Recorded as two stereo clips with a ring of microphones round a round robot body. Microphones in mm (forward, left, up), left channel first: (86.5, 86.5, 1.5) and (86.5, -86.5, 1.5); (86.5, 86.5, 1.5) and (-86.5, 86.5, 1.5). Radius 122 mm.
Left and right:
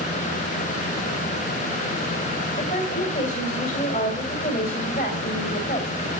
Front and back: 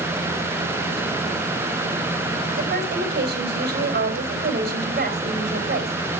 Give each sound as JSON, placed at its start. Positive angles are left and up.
{"t": 2.6, "sound": "a woman speaking", "azimuth_deg": 150, "distance_m": 3.0}